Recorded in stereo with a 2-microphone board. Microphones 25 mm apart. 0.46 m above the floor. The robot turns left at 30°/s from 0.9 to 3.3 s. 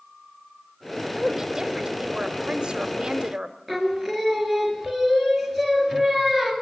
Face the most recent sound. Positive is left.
turn(degrees=5)  # may be behind; listen again after turning